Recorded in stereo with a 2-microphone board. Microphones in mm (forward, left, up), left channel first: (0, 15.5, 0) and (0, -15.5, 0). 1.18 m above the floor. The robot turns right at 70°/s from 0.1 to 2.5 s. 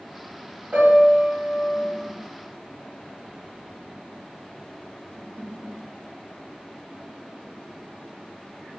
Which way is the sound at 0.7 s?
100° right.